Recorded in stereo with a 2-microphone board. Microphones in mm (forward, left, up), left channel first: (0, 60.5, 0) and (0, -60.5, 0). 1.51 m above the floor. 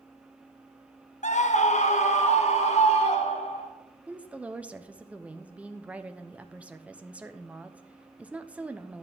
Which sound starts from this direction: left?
A scream, at 1.2 s.